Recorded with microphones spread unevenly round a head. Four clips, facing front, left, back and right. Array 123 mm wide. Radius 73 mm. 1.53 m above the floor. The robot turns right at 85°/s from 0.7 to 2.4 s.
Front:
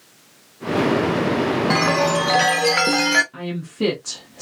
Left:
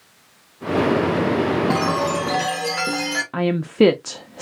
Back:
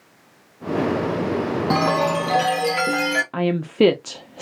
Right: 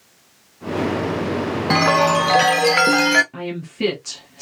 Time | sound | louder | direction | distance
1.7 | a chime | right 4 dB, back 3 dB | 155° right | 0.5 m
3.3 | a woman speaking | left 9 dB, back 8 dB | 130° left | 0.6 m